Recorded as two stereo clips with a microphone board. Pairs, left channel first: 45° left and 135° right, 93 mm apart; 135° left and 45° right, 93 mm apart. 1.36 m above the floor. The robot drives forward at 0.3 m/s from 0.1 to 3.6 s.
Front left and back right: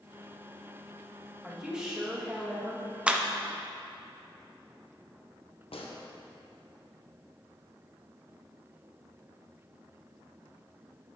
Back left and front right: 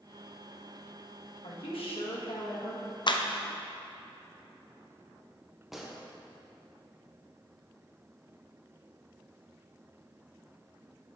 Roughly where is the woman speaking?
Behind left.